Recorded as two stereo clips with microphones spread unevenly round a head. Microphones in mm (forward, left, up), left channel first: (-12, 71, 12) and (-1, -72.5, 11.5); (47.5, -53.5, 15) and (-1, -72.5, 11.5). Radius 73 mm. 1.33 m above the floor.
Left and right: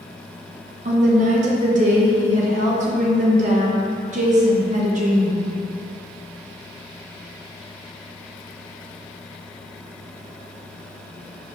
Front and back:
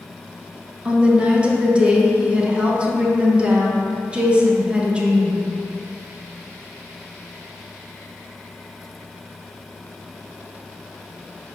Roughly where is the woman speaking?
Right.